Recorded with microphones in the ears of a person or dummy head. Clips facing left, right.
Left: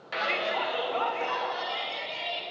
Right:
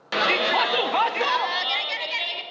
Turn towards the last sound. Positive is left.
turn(degrees=-85)